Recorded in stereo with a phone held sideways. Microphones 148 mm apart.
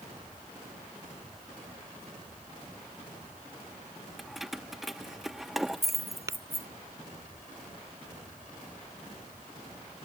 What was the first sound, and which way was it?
Keys jangling, centre (ahead or behind).